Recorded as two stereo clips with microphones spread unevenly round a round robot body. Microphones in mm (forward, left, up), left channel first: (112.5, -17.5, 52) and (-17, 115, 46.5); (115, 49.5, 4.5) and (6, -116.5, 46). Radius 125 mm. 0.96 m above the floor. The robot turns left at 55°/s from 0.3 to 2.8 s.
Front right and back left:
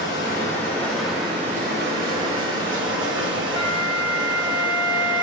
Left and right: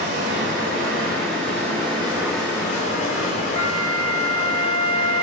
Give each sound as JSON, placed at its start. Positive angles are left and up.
{"t": 0.0, "sound": "running water", "azimuth_deg": -95, "distance_m": 2.0}
{"t": 3.6, "sound": "a flute", "azimuth_deg": 15, "distance_m": 1.0}